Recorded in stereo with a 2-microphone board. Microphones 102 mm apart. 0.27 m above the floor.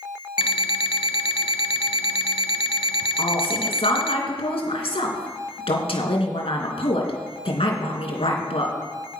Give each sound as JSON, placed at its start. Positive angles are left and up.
{"t": 0.4, "sound": "an alarm clock", "side_deg": 55, "distance_m": 0.6}
{"t": 3.2, "sound": "a woman speaking", "side_deg": 70, "distance_m": 3.0}